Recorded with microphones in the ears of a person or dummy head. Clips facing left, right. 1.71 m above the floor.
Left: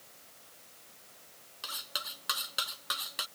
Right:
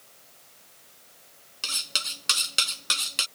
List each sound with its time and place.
1.6 s cutlery clinking: 35° right (ahead or behind)